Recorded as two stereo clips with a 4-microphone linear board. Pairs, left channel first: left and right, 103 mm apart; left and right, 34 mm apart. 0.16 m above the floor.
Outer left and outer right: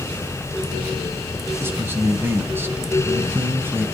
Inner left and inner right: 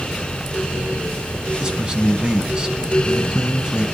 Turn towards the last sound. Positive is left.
turn(degrees=-25)  # may be behind; listen again after turning